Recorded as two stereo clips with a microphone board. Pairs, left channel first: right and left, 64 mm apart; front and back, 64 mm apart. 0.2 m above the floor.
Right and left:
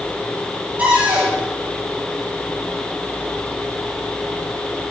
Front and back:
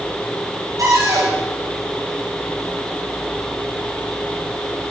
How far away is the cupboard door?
About 5.5 m.